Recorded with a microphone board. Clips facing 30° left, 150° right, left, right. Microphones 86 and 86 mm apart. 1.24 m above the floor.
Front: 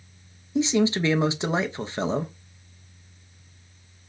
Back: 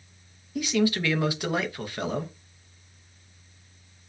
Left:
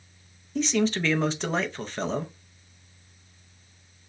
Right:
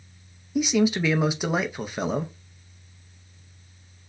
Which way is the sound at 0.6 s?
15° right.